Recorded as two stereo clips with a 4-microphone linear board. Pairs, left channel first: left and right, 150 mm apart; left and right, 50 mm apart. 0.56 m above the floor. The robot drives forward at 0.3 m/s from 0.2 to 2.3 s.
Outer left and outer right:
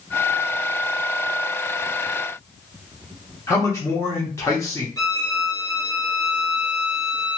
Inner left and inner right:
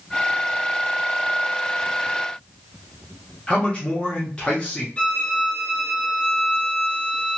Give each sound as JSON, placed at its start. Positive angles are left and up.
{"t": 3.5, "sound": "a man speaking", "side_deg": 20, "distance_m": 1.1}
{"t": 5.0, "sound": "a violin", "side_deg": 25, "distance_m": 0.7}